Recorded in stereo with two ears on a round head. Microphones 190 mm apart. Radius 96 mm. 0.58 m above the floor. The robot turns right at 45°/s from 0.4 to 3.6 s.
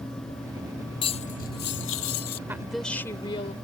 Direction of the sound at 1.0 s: 25° left.